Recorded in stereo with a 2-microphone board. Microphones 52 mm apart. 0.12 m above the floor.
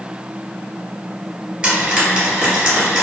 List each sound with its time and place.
1.6 s frying: 15° right (ahead or behind), 1.7 m